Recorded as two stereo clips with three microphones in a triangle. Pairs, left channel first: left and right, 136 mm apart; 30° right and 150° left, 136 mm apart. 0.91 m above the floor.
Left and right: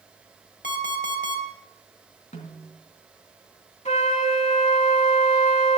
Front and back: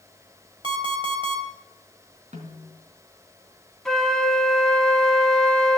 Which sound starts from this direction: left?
An alarm clock, at 0.6 s.